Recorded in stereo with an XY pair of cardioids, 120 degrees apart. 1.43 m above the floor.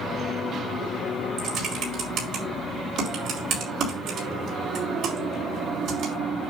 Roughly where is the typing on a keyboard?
Ahead right.